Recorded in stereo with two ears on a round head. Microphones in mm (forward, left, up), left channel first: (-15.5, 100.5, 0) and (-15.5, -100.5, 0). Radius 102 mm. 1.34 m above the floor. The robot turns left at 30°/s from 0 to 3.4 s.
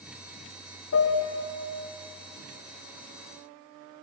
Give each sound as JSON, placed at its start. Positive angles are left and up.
{"t": 0.9, "sound": "a piano", "side_deg": 70, "distance_m": 0.7}